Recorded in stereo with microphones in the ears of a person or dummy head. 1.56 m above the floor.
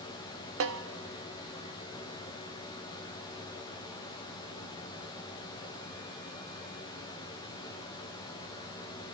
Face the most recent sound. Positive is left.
turn(degrees=-70)  # may be behind; listen again after turning